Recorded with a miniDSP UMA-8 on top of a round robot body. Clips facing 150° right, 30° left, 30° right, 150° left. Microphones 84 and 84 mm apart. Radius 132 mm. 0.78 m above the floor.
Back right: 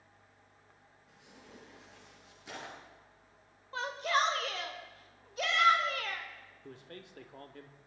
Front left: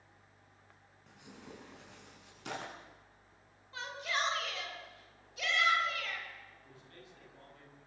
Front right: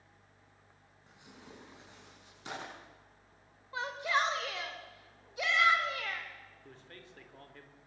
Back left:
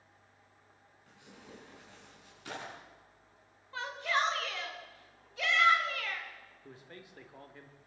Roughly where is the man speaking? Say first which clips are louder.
Back right 6 dB, back left 5 dB; behind right.